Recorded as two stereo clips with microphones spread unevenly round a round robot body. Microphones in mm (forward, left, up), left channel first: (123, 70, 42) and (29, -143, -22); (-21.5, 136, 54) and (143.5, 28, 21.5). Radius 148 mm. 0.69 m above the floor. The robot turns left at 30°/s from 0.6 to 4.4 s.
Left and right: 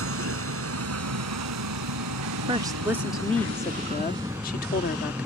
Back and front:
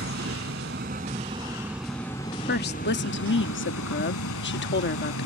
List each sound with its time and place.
0.0 s a vehicle: 85° right; by 5.3 s 160° left
2.5 s a woman speaking: 170° right; by 5.3 s 130° left